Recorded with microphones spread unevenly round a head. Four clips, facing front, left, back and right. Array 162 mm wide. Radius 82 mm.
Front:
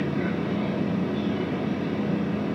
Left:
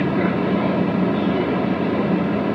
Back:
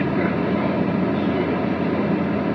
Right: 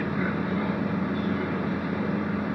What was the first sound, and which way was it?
A machine running, 125° left.